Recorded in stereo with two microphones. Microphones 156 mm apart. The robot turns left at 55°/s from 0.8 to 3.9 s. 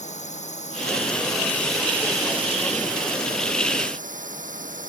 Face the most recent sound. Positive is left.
turn(degrees=-120)